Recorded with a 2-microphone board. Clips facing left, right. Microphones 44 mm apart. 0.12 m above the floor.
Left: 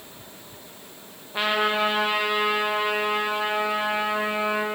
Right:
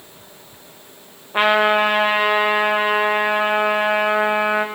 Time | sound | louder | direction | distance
1.3 | a trumpet | right 8 dB | 35° right (ahead or behind) | 3.5 m